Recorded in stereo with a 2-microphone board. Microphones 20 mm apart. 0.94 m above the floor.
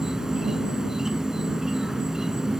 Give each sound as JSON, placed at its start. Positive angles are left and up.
{"t": 0.0, "sound": "an insect", "side_deg": -30}